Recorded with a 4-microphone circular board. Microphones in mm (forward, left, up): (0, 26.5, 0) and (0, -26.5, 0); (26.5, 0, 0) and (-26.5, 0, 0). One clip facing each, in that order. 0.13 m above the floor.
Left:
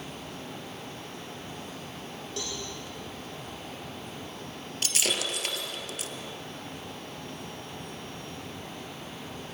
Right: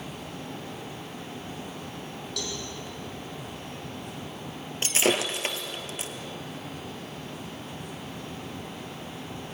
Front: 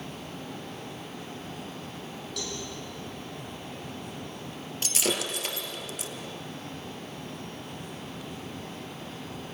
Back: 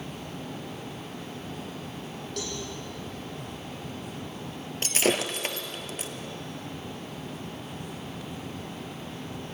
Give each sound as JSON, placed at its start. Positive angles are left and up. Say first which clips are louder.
{"t": 2.4, "sound": "a cowbell", "louder": "right 1 dB, back 2 dB", "azimuth_deg": 145, "distance_m": 5.5}
{"t": 4.8, "sound": "breaking glass", "louder": "right 6 dB, back 4 dB", "azimuth_deg": -145, "distance_m": 1.7}